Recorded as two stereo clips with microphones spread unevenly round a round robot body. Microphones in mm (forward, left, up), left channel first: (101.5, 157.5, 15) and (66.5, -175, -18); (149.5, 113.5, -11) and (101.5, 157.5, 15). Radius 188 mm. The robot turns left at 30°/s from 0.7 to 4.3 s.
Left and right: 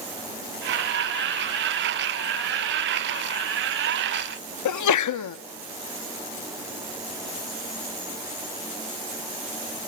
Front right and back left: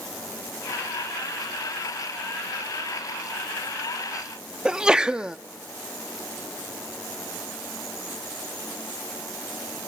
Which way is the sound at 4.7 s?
45° left.